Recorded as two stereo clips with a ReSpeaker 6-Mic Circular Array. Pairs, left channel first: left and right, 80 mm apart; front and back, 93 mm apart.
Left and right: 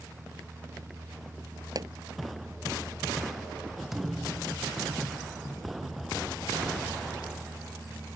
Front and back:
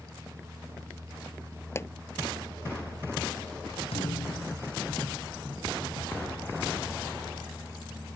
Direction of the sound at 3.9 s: 5° right.